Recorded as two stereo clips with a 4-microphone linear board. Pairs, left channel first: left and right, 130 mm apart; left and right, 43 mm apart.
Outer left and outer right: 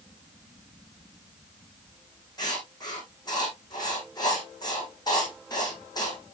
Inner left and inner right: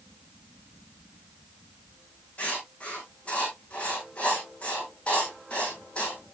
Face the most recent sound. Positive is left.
turn(degrees=30)  # may be behind; listen again after turning